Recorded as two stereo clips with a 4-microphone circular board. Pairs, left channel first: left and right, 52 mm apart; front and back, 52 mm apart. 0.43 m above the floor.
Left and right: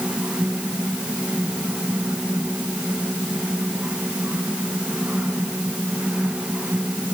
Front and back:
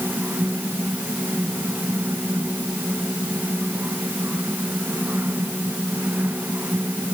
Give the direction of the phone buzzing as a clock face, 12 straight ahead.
No phone buzzing in this recording.